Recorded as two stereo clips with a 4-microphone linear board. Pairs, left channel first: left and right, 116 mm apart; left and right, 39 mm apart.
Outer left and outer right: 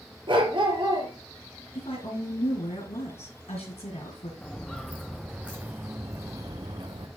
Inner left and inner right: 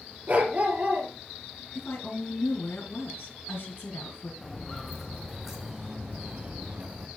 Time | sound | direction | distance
0.3 | a dog barking | 45° right (ahead or behind) | 2.5 m
1.8 | a woman speaking | 65° left (ahead or behind) | 4.5 m
4.4 | footsteps | 10° left (ahead or behind) | 1.7 m